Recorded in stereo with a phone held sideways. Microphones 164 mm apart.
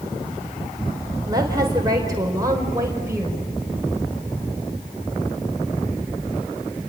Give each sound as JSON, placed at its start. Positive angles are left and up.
{"t": 1.3, "sound": "a woman speaking", "side_deg": -25, "distance_m": 4.0}